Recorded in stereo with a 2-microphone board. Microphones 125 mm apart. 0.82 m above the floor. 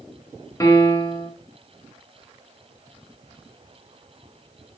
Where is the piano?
25° left (ahead or behind), 1.5 m.